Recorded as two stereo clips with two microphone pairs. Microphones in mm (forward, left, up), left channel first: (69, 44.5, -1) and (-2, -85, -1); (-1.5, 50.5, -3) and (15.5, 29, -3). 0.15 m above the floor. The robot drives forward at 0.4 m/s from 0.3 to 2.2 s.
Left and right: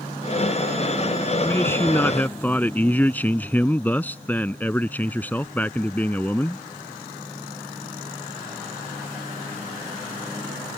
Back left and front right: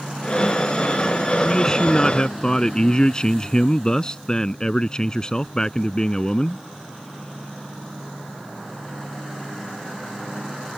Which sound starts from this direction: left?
A man speaking, at 1.4 s.